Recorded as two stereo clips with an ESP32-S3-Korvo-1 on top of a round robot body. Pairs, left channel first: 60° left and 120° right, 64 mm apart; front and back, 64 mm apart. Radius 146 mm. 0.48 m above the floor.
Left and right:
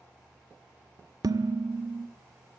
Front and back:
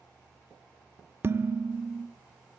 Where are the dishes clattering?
130° right, 1.1 m.